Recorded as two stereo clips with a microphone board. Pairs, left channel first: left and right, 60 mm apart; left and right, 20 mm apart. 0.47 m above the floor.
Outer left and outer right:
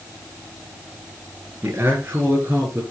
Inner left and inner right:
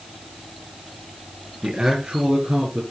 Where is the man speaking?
40° right (ahead or behind), 6 m; by 2.8 s 30° right (ahead or behind), 6.5 m.